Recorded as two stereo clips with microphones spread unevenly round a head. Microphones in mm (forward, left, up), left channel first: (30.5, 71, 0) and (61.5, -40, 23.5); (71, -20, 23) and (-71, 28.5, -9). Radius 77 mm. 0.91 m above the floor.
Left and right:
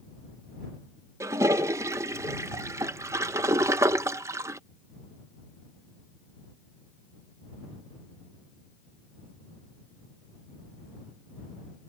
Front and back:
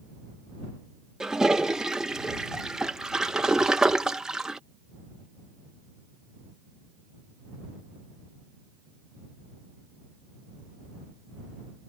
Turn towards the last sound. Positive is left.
turn(degrees=-140)